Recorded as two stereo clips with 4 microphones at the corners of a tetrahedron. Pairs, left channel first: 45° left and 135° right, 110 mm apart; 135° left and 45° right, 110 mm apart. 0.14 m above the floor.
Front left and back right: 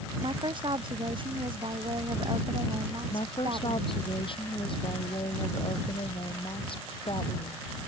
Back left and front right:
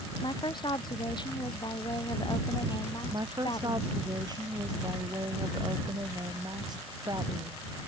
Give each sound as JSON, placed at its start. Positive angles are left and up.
{"t": 0.2, "sound": "a woman speaking", "azimuth_deg": 180}
{"t": 3.1, "sound": "a woman speaking", "azimuth_deg": 5}